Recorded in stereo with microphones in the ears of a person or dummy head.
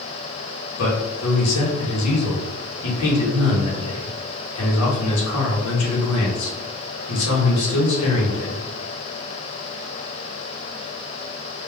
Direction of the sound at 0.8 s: 85° left.